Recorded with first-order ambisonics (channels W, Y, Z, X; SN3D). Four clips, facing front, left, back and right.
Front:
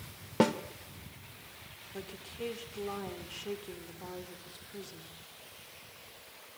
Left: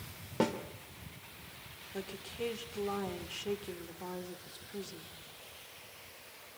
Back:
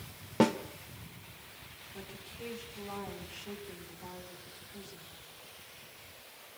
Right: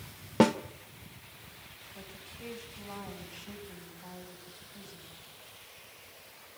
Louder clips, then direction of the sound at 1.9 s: Left 10 dB, front 5 dB; 65° left.